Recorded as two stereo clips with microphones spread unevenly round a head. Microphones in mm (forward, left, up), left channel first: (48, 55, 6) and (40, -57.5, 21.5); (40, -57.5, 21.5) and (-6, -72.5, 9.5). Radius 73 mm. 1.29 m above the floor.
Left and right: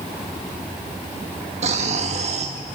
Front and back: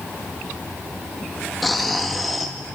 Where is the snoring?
70° right, 2 m.